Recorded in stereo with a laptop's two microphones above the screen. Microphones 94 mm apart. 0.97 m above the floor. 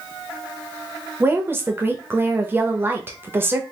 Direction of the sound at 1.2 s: 25° right (ahead or behind).